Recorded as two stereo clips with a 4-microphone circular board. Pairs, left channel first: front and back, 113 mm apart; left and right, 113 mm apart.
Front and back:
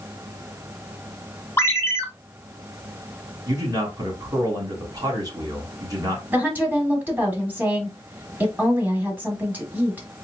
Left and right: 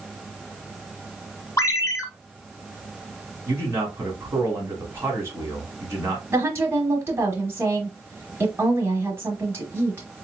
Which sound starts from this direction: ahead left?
A ringtone, at 1.6 s.